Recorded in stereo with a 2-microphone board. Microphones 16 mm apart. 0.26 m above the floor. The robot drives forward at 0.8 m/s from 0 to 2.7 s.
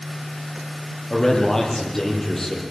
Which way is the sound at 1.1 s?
35° left (ahead or behind).